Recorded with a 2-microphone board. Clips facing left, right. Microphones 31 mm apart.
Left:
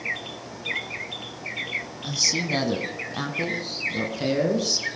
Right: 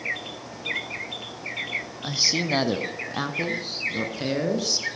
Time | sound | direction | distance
2.0 | a man speaking | 25° right (ahead or behind) | 1.1 m